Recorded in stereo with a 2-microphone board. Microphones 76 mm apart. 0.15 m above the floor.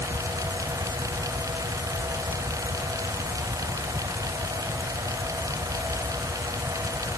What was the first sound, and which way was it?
Only background noise.